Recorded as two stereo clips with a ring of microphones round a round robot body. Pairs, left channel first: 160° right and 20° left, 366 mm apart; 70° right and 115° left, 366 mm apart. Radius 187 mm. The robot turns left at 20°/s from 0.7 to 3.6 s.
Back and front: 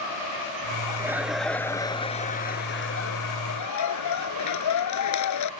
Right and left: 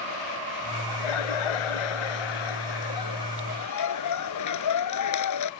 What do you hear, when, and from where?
0.9 s laughter: 60° right; by 5.5 s 110° right